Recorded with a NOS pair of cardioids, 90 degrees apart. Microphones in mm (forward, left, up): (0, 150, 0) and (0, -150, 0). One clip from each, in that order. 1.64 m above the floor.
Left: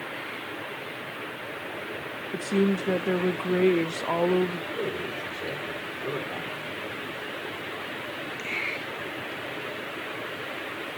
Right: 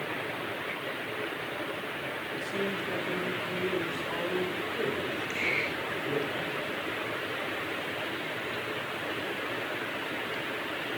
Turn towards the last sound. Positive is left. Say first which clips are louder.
# even
turn(degrees=10)